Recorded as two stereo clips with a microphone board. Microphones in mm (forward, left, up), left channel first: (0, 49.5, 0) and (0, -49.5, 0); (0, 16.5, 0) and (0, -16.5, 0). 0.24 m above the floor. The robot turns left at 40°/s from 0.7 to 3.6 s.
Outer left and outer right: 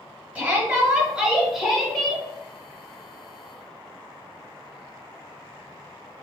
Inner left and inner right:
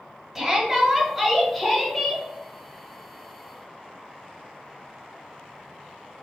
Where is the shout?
15° right (ahead or behind), 1.3 m; by 2.2 s 15° left (ahead or behind), 1.3 m.